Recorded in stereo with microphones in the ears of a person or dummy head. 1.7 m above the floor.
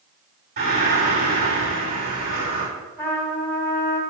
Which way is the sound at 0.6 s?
50° right (ahead or behind).